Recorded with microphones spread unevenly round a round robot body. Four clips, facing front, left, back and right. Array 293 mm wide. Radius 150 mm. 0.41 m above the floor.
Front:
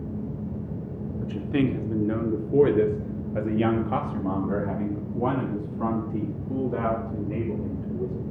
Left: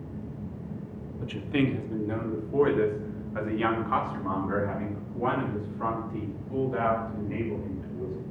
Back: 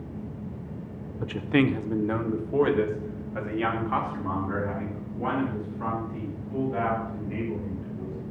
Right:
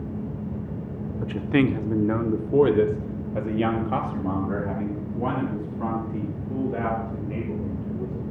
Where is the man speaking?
140° right, 1.3 m; by 8.1 s 25° right, 5.5 m.